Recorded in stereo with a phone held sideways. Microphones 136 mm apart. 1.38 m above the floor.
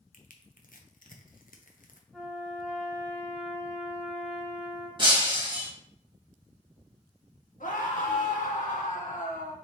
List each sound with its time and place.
0.1 s crushing: 85° left, 0.6 m
2.1 s a trumpet: centre (ahead or behind), 1.6 m
5.0 s breaking glass: 35° right (ahead or behind), 1.0 m
7.6 s a scream: 80° left, 1.3 m